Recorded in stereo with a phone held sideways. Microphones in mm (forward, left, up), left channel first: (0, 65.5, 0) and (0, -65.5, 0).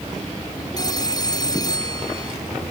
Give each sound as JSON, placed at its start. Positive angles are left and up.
{"t": 0.8, "sound": "a phone ringing", "side_deg": 30}